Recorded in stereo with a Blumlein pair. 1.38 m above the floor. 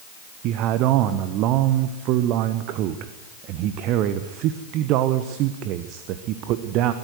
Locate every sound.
0.4 s a man speaking: 40° right, 1.3 m